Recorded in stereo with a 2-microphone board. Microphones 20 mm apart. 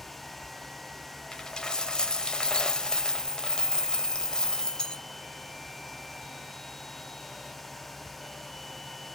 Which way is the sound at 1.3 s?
40° left (ahead or behind).